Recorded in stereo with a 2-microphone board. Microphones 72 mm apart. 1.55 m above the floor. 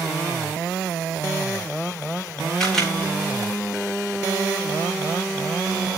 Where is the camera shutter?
5° left (ahead or behind), 10 m.